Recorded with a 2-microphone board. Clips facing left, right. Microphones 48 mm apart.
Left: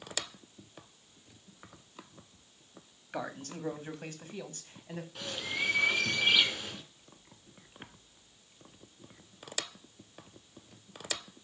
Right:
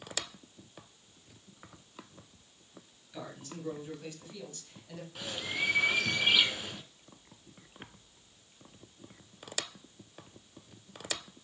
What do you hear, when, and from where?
3.1 s a man speaking: 65° left (ahead or behind), 1.9 m; by 5.0 s 35° left (ahead or behind), 2 m
5.2 s a bird: 5° right (ahead or behind), 1.9 m